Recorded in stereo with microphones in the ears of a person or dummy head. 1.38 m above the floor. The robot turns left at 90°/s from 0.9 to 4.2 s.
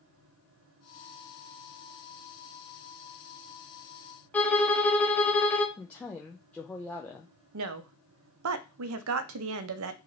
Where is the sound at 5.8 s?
15° left (ahead or behind), 0.6 m.